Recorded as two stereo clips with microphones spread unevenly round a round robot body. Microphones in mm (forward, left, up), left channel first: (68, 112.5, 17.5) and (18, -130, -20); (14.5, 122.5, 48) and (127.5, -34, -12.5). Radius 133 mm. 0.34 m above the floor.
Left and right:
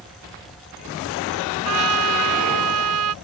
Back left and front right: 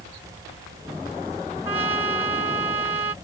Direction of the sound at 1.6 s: 130° right.